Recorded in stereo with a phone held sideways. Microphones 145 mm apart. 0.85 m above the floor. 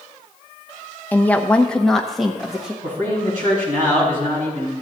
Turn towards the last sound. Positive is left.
turn(degrees=-65)  # may be behind; listen again after turning